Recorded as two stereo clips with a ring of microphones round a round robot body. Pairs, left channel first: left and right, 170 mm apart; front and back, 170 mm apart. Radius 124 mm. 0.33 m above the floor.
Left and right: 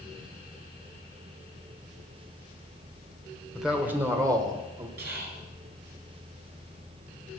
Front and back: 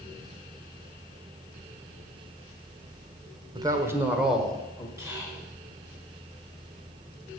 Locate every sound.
3.5 s a man speaking: straight behind, 1.2 m; by 4.9 s 70° right, 1.4 m
5.0 s whispering: 105° right, 2.5 m